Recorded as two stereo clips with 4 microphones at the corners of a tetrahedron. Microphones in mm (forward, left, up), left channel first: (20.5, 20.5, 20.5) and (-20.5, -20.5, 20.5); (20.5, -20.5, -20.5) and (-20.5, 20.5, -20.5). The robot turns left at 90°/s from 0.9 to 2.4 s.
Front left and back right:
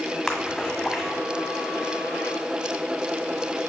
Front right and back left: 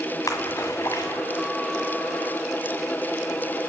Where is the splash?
40° right, 1.7 m; by 1.2 s 65° right, 1.7 m.